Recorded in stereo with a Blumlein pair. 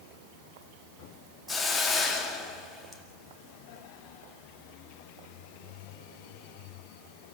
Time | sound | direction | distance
1.5 | a hiss | 10° left | 2 m